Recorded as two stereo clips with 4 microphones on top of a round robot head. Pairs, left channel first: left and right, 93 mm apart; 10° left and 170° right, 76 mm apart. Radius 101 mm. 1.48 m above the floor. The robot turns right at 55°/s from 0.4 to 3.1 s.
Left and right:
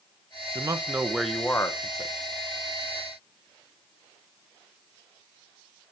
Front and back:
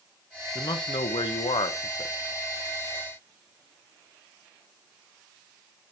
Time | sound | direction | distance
0.6 | a man speaking | 35° right | 0.8 m